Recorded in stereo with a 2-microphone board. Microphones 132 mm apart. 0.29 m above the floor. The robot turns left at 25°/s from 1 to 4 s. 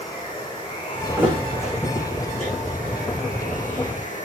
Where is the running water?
150° left, 5.5 m; by 4.2 s 75° left, 5.5 m.